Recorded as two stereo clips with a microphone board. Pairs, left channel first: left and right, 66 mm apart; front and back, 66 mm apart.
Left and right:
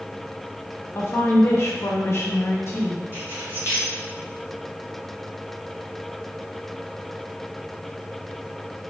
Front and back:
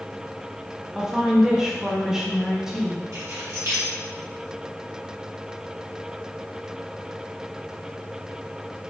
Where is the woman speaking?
105° left, 0.7 m.